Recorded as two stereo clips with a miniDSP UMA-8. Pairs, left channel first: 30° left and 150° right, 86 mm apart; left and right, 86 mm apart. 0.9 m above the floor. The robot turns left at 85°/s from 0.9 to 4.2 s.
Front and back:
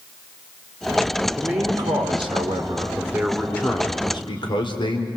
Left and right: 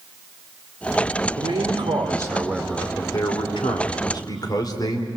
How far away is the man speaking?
About 3 m.